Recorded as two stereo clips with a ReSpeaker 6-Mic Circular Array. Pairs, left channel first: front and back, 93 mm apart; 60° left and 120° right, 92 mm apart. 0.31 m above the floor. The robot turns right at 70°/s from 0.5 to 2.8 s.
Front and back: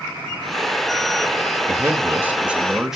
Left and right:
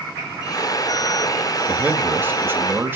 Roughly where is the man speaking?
Behind.